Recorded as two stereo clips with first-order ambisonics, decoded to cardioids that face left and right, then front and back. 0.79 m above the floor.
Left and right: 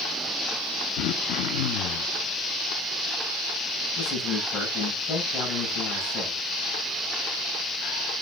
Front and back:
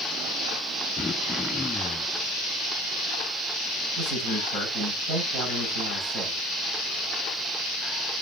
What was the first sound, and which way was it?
Throat clearing, 75° left.